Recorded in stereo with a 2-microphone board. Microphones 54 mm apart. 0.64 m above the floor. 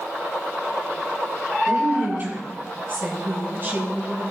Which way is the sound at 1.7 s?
40° right (ahead or behind).